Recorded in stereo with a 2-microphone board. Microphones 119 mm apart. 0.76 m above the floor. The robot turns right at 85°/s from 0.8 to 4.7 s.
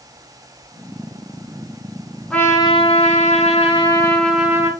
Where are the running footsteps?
No running footsteps in this recording.